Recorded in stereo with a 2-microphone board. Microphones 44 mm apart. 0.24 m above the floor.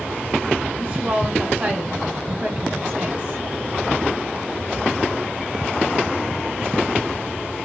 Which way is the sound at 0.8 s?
35° right (ahead or behind).